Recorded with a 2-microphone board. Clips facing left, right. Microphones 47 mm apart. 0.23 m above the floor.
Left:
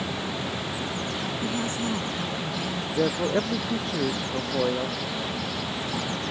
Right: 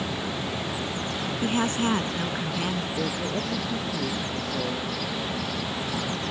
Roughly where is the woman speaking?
Right.